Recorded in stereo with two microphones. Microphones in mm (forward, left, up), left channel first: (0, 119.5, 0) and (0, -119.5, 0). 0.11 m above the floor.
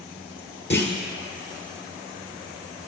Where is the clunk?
45° left (ahead or behind), 1.3 m.